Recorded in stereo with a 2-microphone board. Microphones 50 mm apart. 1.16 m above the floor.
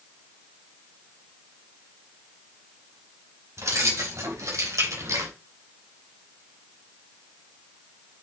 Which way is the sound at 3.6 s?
70° right (ahead or behind).